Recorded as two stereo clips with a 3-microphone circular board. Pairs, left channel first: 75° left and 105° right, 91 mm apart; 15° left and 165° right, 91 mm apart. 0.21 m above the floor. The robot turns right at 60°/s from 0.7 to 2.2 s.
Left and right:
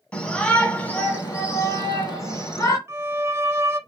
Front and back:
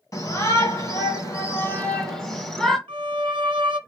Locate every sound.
0.1 s a shout: 5° left, 1.9 m; by 2.8 s 95° left, 1.9 m
2.9 s a violin: 160° right, 0.8 m